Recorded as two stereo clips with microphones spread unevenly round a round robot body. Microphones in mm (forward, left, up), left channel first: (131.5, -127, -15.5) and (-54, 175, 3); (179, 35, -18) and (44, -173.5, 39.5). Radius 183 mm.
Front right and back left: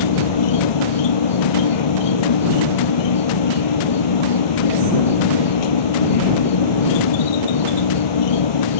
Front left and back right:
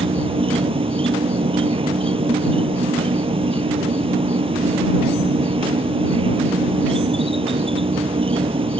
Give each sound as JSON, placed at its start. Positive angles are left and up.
{"t": 0.0, "sound": "an insect", "azimuth_deg": -60}